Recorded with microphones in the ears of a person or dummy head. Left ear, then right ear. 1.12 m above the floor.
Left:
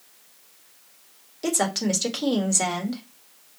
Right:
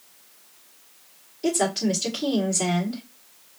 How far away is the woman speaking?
About 1.5 m.